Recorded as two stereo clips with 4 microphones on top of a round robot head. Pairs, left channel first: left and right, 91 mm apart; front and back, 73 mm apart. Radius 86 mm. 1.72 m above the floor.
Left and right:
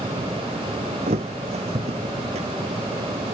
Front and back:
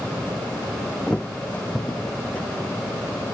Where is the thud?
80° right.